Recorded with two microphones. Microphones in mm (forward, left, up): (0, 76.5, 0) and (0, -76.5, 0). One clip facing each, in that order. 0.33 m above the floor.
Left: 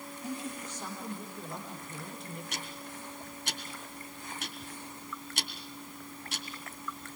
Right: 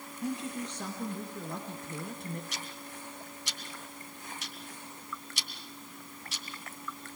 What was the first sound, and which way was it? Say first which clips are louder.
A woman speaking: right 4 dB; 70° right (ahead or behind).